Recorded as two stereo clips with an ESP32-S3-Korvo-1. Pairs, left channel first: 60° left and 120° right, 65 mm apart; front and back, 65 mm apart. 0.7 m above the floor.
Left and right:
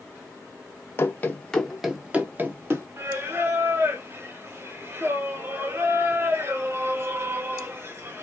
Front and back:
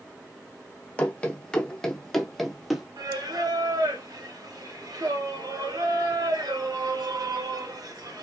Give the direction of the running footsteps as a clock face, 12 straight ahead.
10 o'clock.